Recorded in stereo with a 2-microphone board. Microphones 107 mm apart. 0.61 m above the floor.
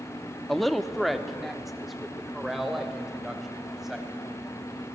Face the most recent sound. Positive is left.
turn(degrees=-5)  # may be behind; listen again after turning